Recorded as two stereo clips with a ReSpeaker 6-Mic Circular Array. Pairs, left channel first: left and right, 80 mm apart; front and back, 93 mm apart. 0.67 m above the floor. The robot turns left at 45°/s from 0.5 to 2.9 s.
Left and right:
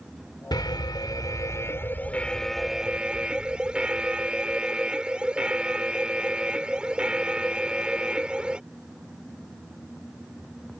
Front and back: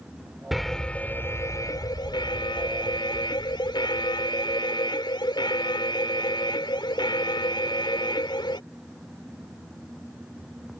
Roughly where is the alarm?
Left.